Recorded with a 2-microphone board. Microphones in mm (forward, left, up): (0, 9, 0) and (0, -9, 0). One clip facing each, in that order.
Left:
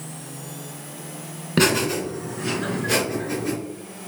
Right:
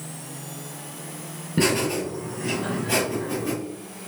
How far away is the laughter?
About 2 m.